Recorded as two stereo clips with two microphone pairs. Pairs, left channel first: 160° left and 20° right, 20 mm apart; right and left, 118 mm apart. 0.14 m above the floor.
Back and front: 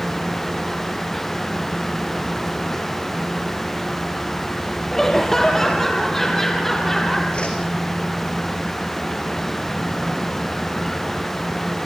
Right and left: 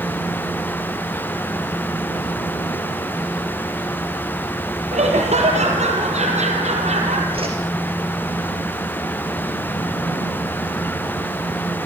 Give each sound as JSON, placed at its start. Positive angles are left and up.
{"t": 4.9, "sound": "laughter", "azimuth_deg": 80, "distance_m": 5.5}
{"t": 7.3, "sound": "a whoosh", "azimuth_deg": 125, "distance_m": 5.5}